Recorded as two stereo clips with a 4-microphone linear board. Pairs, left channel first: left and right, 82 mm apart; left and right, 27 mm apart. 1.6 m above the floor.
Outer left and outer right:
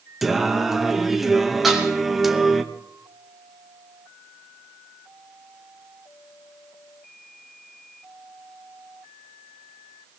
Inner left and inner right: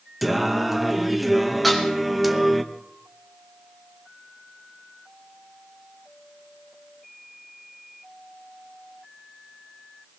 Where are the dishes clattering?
5° right (ahead or behind), 2.5 m.